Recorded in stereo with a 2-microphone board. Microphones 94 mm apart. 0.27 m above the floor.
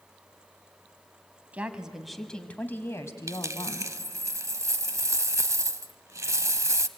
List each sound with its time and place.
1.5 s a woman speaking: 15° right (ahead or behind), 1.6 m; by 3.9 s 50° left (ahead or behind), 1.8 m
3.3 s a dropped coin: 35° right (ahead or behind), 0.6 m